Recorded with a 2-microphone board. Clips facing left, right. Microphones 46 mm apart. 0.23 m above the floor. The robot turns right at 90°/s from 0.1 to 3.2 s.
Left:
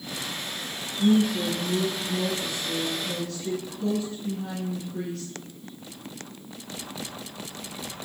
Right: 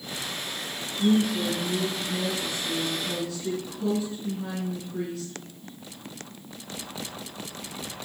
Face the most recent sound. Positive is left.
turn(degrees=-155)